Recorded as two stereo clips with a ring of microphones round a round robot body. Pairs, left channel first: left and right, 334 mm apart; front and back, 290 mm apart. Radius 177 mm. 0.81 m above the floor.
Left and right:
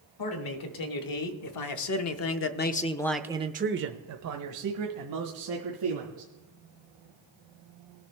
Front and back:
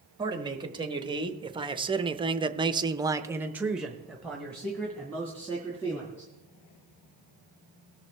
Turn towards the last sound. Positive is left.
turn(degrees=-80)